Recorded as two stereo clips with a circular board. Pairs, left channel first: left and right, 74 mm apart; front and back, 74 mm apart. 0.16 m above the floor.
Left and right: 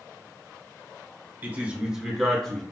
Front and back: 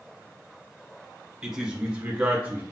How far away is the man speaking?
About 1.2 m.